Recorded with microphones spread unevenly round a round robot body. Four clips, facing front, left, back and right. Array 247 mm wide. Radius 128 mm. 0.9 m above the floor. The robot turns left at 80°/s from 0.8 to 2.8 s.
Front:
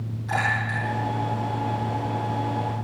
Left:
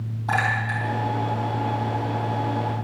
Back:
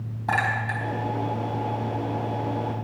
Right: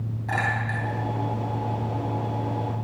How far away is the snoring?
No snoring in this recording.